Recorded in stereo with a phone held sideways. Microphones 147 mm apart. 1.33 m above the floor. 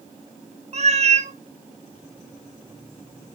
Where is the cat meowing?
50° right (ahead or behind), 0.7 m.